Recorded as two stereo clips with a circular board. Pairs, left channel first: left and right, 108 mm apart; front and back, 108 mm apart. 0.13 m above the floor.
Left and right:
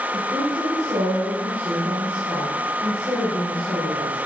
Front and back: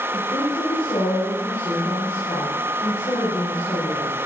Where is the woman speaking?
50° right, 7 m.